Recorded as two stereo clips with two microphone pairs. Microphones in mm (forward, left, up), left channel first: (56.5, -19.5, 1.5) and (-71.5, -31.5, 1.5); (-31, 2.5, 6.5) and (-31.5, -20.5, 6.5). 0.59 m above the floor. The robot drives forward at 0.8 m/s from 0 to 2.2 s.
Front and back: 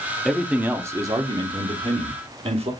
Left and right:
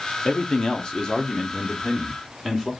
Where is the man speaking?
95° left, 1.2 m; by 2.7 s 155° left, 2 m.